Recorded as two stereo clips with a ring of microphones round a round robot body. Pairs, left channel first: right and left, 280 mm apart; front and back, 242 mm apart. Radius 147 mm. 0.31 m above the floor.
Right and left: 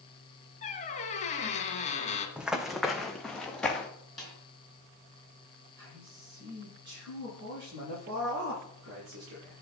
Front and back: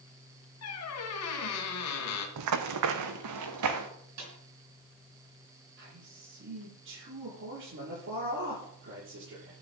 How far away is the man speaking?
About 8 m.